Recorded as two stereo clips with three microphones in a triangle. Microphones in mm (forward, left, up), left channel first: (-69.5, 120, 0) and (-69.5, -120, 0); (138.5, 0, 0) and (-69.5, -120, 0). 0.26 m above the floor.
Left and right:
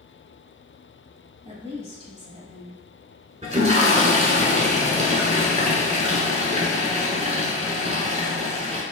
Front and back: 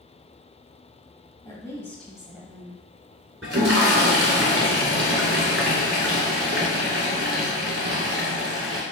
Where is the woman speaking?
35° right, 1.5 m; by 3.3 s 145° right, 1.3 m.